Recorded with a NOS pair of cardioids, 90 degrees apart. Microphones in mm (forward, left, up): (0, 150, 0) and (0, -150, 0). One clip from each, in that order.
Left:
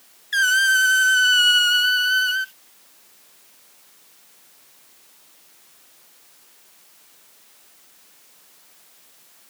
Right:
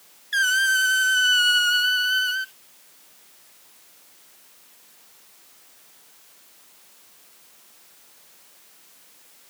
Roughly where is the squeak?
Ahead.